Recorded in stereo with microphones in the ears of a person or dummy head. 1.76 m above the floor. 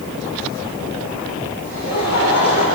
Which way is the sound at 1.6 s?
50° left (ahead or behind).